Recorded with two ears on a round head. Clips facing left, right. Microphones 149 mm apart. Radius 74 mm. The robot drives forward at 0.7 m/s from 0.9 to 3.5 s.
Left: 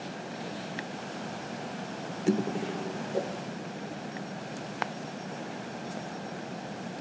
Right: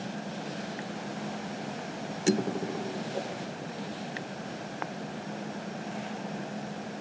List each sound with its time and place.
3.1 s a whoosh: 30° left (ahead or behind), 3.5 m